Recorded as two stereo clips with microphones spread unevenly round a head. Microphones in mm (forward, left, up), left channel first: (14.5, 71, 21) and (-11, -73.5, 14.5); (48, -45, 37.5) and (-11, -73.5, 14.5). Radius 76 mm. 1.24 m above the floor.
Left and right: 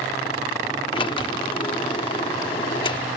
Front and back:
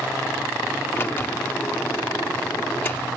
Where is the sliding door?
40° left.